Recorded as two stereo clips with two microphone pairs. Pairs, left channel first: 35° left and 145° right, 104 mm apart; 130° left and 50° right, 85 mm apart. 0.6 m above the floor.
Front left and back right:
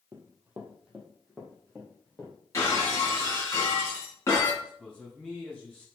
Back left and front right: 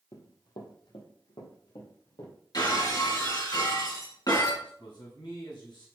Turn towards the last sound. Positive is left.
turn(degrees=120)